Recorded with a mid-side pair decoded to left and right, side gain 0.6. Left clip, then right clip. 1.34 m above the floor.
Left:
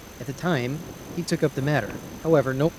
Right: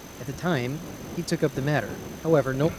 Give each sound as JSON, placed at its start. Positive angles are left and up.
{"t": 0.2, "sound": "a man speaking", "azimuth_deg": 10}